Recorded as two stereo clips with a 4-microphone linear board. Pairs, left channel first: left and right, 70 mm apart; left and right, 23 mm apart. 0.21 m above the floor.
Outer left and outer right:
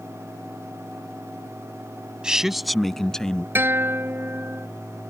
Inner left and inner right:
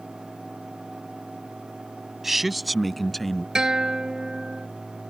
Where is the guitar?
35° right (ahead or behind).